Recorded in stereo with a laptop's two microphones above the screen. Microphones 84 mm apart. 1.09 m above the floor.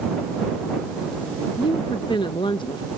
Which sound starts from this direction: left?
A woman speaking, at 1.6 s.